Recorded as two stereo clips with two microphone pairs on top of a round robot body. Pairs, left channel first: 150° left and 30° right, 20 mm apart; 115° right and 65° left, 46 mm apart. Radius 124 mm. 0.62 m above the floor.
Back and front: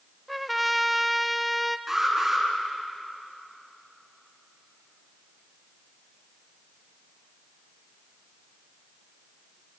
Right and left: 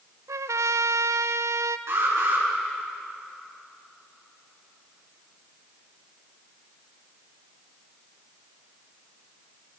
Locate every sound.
0.3 s a trumpet: 60° left, 0.6 m
1.9 s an alarm: 45° left, 8 m